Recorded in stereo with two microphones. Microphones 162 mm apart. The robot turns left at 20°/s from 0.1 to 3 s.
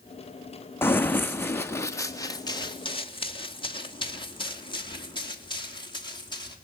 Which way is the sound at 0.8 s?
15° left (ahead or behind).